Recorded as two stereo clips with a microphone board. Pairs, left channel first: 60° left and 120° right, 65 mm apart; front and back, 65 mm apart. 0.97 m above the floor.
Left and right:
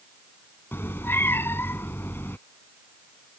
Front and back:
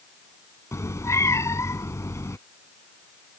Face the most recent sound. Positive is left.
turn(degrees=20)